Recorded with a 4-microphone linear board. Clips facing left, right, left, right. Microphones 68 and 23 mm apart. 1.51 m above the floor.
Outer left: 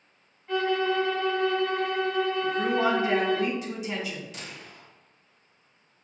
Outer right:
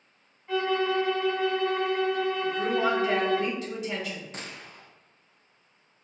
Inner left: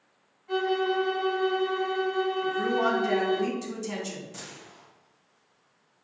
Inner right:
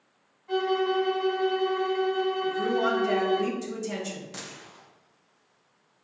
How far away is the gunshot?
About 0.6 m.